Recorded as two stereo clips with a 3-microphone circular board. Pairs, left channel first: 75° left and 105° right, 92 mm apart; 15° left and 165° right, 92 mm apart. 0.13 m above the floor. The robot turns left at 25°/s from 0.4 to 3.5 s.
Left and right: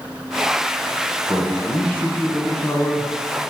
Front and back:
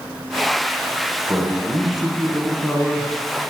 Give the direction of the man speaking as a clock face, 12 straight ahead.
8 o'clock.